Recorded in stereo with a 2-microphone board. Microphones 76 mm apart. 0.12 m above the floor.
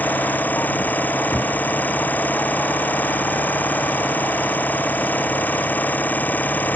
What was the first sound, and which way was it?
An engine running, 20° left (ahead or behind).